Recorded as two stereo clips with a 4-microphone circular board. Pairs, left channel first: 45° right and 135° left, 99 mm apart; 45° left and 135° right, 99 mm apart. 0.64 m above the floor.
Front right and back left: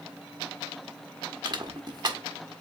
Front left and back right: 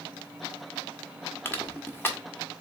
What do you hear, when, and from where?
1.4 s crushing: 105° left, 1.1 m